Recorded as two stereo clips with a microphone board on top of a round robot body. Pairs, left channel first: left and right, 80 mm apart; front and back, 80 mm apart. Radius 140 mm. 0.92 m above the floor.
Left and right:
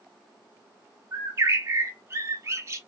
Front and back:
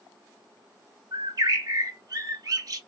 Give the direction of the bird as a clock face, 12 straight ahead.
5 o'clock.